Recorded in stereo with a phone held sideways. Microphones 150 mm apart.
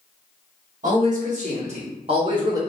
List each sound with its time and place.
0.8 s a man speaking: 60° right (ahead or behind), 1.8 m; by 2.6 s 25° right (ahead or behind), 1.0 m